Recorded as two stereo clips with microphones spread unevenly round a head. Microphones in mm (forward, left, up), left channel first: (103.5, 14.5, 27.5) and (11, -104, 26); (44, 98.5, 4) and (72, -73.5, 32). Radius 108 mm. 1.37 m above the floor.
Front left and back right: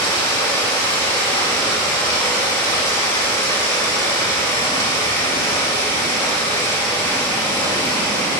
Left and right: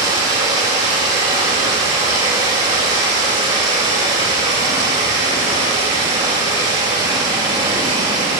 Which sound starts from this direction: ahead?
Running water, at 0.0 s.